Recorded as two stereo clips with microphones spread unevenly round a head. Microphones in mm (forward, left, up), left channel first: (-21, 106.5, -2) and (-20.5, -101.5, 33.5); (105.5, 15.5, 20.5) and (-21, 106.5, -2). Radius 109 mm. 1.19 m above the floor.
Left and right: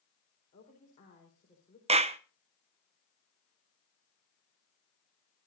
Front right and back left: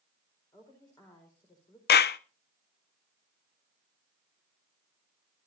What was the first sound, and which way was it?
A woman speaking, 30° left.